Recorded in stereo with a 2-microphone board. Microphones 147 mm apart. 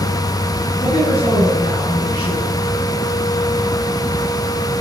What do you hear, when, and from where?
0.8 s a woman speaking: 35° left (ahead or behind), 9.5 m